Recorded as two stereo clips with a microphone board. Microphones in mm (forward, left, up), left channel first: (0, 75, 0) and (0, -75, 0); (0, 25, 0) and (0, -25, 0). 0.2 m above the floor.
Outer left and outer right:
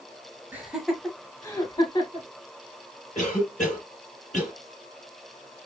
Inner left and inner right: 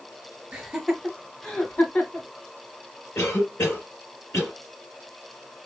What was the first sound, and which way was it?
Laughter, 10° right (ahead or behind).